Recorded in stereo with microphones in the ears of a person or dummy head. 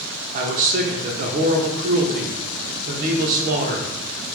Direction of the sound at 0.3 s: 45° right (ahead or behind).